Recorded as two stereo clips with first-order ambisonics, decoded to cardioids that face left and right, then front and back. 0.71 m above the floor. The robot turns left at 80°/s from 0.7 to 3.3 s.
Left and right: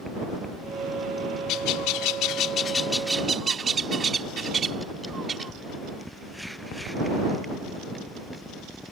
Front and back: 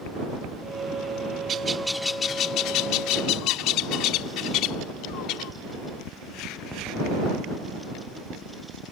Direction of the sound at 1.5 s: 125° left.